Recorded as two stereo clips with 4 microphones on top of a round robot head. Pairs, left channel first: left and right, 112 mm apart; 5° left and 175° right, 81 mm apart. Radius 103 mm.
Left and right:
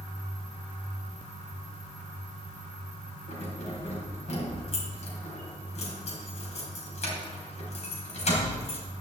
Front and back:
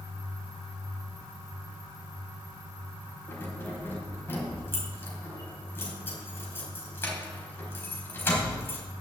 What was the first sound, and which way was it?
Keys jangling, 65° left.